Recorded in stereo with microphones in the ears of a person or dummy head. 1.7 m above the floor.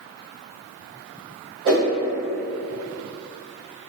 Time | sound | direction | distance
1.6 | a whoosh | 25° right (ahead or behind) | 1.2 m